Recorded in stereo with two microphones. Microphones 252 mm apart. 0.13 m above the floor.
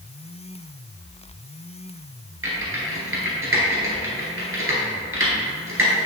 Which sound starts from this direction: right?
Typing on a keyboard, at 2.4 s.